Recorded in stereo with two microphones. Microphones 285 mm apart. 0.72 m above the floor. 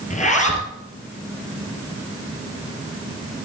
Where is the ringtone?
No ringtone in this recording.